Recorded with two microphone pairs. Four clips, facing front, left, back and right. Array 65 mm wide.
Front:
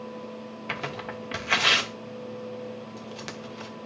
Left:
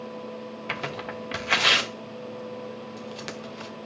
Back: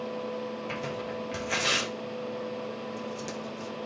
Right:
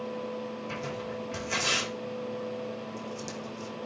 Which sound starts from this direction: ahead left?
Tearing paper, at 0.7 s.